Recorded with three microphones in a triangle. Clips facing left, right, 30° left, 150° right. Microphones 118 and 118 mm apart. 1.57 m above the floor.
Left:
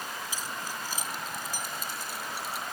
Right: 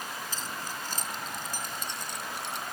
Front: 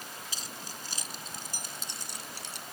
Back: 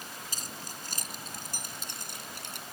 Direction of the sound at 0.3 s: 170° left.